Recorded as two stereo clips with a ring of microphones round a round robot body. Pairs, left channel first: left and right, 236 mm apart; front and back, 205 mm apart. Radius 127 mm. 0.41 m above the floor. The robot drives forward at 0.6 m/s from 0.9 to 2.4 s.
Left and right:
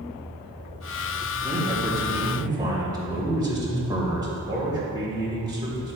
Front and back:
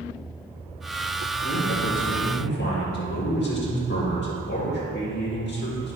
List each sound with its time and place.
1.4 s a man speaking: 15° right, 3 m; by 6.0 s 20° right, 2.5 m